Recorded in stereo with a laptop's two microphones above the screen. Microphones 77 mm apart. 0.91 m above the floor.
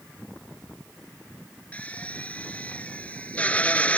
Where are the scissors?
I don't hear scissors.